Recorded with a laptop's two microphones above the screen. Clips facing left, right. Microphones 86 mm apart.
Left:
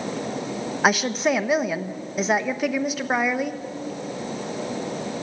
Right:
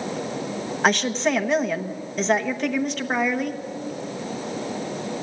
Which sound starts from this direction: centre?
A woman speaking, at 0.8 s.